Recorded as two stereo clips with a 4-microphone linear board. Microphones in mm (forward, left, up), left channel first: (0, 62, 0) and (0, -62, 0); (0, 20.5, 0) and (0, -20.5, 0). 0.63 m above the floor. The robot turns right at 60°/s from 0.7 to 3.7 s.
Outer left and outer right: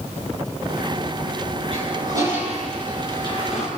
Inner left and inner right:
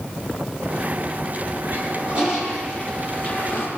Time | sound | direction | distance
1.7 | a toilet flushing | 55° right | 8.5 m